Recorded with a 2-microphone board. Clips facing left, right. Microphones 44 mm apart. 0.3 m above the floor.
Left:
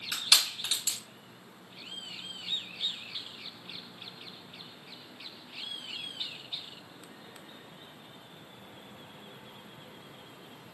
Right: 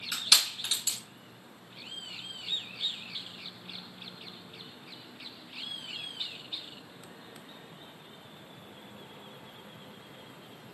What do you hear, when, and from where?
0.1 s crushing: 10° left (ahead or behind), 1.9 m